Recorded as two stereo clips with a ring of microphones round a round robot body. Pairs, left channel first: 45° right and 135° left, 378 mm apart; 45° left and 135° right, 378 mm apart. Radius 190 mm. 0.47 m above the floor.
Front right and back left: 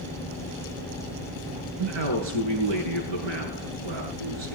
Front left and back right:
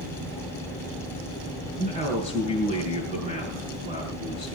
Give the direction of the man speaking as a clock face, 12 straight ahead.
7 o'clock.